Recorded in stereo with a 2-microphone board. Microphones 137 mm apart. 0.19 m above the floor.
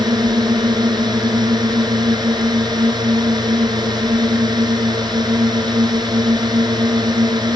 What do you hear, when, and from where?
0.0 s a drone: 30° right (ahead or behind)